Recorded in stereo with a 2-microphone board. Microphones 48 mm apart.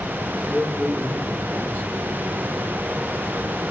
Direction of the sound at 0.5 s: 60° right (ahead or behind).